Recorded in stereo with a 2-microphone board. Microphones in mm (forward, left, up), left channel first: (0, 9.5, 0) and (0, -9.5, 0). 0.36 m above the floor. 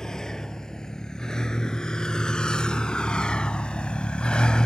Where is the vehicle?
35° left (ahead or behind); by 4.7 s 50° left (ahead or behind).